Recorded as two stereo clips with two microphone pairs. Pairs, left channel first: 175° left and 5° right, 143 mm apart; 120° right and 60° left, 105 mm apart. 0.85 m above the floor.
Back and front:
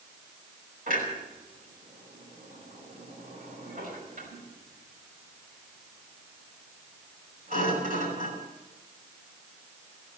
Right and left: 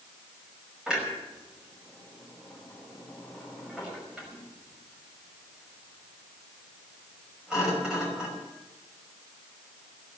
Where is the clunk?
20° right, 5.5 m.